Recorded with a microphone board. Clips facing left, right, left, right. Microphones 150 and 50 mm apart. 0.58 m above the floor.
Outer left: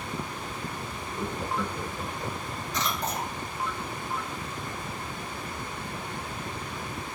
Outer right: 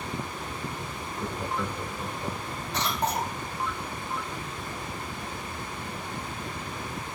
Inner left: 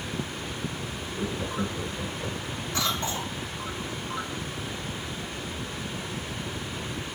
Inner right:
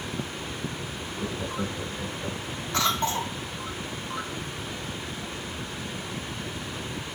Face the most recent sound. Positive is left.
turn(degrees=-65)  # may be behind; listen again after turning